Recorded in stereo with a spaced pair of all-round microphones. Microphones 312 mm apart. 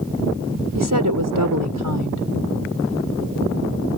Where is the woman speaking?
80° right.